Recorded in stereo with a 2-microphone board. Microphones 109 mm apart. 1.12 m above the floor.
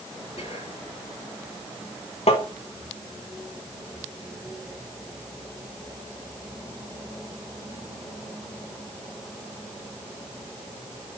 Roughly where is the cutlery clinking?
I don't hear cutlery clinking.